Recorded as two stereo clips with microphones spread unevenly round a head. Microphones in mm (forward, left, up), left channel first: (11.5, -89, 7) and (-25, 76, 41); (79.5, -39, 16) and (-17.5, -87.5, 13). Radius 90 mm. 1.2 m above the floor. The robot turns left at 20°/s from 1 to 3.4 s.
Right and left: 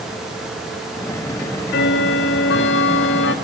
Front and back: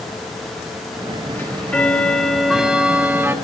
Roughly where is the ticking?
Ahead right.